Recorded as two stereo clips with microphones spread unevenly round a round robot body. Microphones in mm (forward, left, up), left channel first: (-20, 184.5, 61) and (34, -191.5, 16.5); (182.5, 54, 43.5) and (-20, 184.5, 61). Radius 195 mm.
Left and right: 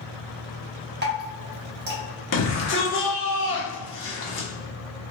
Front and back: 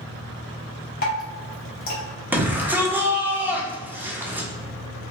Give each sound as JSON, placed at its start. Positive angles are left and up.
{"t": 1.0, "sound": "dripping", "azimuth_deg": -45, "distance_m": 0.9}
{"t": 2.3, "sound": "a shout", "azimuth_deg": 65, "distance_m": 1.0}